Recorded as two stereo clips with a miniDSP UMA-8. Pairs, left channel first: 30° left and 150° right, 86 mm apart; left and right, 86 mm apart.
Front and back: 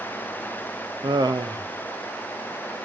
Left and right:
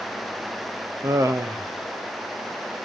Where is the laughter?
135° right, 0.7 m.